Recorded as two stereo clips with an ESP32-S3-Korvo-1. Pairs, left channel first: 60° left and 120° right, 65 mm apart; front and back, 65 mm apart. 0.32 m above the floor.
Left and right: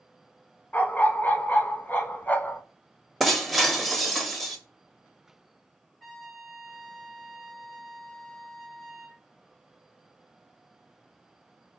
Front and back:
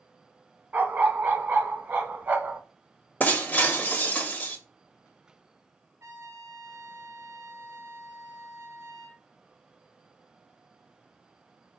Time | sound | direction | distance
0.7 | a dog barking | 120° left | 0.6 m
3.2 | breaking glass | 30° right | 0.7 m
6.0 | a trumpet | 145° left | 1.2 m